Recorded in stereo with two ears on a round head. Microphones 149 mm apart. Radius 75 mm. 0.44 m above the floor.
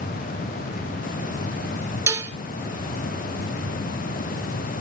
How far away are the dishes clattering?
About 0.6 m.